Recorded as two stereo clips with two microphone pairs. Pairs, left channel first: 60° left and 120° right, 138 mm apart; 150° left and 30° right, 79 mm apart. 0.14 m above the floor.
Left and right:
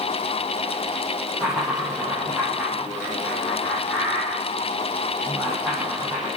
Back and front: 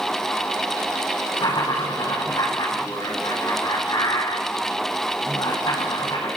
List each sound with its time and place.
1.4 s laughter: 155° left, 7 m